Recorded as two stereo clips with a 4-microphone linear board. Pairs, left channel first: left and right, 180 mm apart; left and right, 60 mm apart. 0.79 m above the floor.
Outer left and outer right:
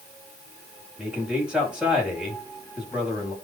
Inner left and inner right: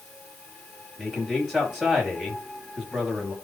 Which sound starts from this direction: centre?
A man speaking, at 1.0 s.